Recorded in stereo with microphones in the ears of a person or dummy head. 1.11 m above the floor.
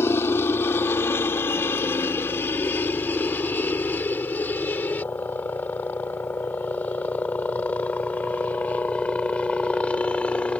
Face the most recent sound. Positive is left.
turn(degrees=10)  # may be behind; listen again after turning